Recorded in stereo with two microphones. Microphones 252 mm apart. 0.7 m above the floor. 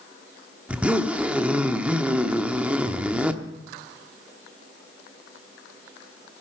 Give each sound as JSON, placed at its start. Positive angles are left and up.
{"t": 0.7, "sound": "a zipper", "side_deg": -5, "distance_m": 0.9}